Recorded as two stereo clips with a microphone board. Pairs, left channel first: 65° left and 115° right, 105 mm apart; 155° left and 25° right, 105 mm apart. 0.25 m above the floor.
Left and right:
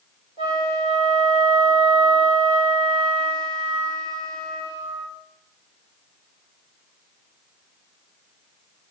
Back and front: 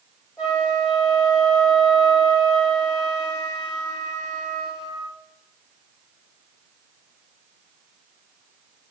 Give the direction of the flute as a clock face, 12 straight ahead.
3 o'clock.